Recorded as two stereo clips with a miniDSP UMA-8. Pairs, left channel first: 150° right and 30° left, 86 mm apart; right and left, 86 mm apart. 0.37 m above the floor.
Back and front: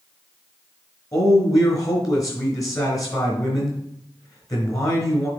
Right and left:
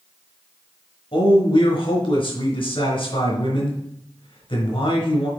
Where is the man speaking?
100° right, 4 m.